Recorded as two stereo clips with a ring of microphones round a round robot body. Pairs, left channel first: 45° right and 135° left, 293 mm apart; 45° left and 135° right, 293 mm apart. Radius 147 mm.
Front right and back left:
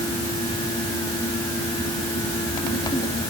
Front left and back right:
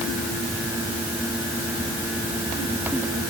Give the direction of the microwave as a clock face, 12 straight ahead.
No microwave in this recording.